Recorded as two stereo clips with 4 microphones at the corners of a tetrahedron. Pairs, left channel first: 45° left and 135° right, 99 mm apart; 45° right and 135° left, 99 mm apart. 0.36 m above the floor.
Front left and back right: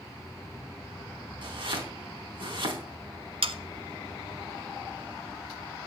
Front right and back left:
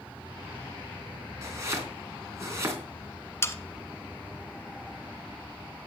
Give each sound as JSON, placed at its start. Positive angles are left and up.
{"t": 1.4, "sound": "chopping", "azimuth_deg": -165, "distance_m": 3.5}
{"t": 3.4, "sound": "sawing", "azimuth_deg": -110, "distance_m": 1.0}